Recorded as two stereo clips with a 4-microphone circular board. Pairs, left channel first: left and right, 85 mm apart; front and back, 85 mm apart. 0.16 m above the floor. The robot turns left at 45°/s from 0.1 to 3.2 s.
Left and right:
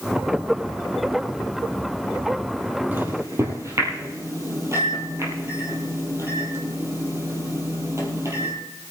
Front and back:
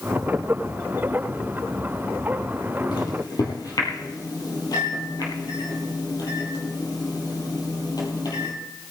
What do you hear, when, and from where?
2.9 s a microwave: 20° right, 4 m; by 8.5 s 35° right, 4 m